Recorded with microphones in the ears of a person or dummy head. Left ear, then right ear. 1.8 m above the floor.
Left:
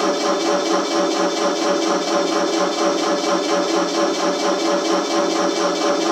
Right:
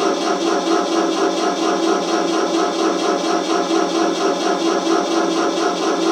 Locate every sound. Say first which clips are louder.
0.0 s a machine running: right 1 dB; 60° left (ahead or behind), 1.5 m